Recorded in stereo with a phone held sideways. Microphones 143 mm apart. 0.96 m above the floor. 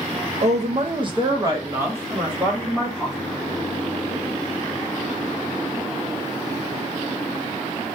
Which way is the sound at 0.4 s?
55° right (ahead or behind).